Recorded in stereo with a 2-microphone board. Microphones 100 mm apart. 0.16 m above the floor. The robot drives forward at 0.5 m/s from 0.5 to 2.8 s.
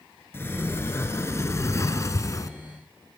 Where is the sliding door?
25° left (ahead or behind), 2 m; by 2.5 s 35° left (ahead or behind), 1.6 m.